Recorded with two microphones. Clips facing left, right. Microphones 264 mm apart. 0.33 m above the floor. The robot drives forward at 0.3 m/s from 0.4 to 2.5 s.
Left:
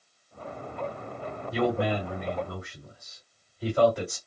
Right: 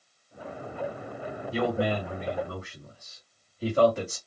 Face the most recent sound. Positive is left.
turn(degrees=-30)  # may be behind; listen again after turning